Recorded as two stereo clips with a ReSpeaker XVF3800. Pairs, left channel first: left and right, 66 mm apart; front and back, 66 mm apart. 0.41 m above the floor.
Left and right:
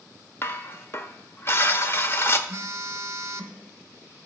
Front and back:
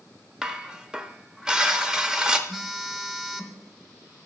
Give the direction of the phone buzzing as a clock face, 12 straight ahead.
3 o'clock.